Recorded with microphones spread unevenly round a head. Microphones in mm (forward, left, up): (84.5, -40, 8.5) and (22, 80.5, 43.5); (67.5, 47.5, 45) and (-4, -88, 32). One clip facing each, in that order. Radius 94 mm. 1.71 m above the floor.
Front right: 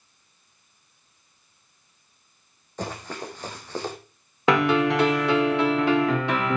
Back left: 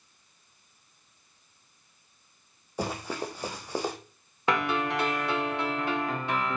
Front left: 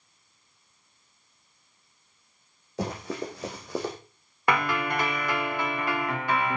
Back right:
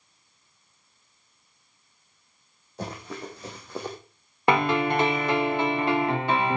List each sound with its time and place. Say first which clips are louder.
2.8 s running footsteps: back left 1 dB, front left 4 dB; 40° left, 6 m; by 4.0 s 45° left, 5 m
4.5 s a piano: front right 8 dB, back right 5 dB; 50° right, 1.2 m